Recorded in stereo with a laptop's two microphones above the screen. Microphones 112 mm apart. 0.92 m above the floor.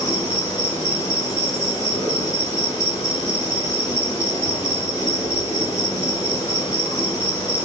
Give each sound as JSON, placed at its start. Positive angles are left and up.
{"t": 0.0, "sound": "an insect", "side_deg": 30, "distance_m": 1.3}